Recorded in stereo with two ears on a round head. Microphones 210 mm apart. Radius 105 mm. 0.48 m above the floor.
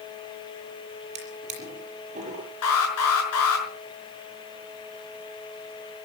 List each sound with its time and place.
1.1 s a drawer: 30° right (ahead or behind), 6.5 m
2.6 s an alarm: 75° left (ahead or behind), 6 m